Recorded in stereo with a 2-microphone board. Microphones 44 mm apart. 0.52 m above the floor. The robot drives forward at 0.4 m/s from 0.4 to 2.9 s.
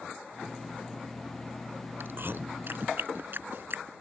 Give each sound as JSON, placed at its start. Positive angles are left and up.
{"t": 2.0, "sound": "chewing", "side_deg": -60}